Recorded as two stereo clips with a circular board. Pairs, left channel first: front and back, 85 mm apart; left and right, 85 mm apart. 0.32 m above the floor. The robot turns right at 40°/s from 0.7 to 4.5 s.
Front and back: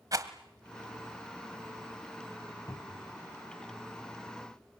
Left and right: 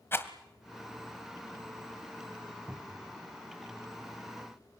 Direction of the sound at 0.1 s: 145° left.